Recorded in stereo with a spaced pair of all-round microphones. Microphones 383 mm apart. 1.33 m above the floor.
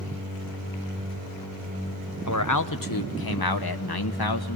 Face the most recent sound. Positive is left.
turn(degrees=70)  # may be behind; listen again after turning